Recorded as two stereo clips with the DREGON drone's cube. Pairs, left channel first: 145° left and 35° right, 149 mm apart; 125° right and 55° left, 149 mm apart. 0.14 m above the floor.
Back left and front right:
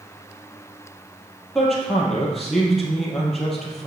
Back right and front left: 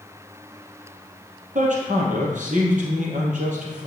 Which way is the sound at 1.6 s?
60° left.